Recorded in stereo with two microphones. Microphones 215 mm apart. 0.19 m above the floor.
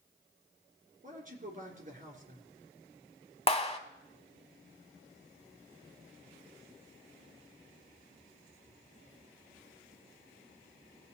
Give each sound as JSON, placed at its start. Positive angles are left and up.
{"t": 1.0, "sound": "a man speaking", "side_deg": -40, "distance_m": 3.0}
{"t": 3.5, "sound": "a clap", "side_deg": 25, "distance_m": 1.0}